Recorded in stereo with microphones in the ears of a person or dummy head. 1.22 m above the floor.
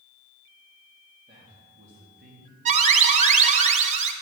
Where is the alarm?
40° right (ahead or behind), 0.9 m.